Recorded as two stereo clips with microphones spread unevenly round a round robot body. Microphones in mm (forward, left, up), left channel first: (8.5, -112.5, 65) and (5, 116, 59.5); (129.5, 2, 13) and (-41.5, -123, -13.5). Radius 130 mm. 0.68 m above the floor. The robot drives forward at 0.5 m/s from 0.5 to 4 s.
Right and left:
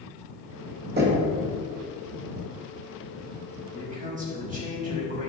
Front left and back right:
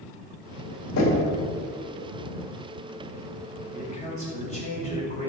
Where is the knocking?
45° left, 2.5 m.